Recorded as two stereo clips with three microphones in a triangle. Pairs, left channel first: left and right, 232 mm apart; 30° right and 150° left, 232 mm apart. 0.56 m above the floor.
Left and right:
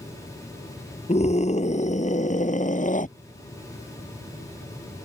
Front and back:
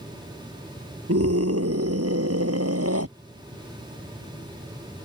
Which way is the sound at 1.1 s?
150° left.